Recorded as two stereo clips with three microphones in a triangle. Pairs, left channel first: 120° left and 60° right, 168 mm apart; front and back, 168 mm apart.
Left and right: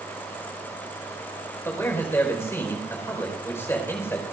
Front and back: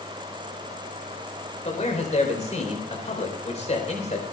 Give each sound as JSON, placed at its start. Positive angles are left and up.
{"t": 1.6, "sound": "a man speaking", "azimuth_deg": 45, "distance_m": 4.0}